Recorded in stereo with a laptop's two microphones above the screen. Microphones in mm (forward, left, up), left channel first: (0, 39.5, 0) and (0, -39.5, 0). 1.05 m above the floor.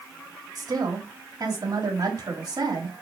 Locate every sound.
0.6 s a woman speaking: 55° right (ahead or behind), 1.9 m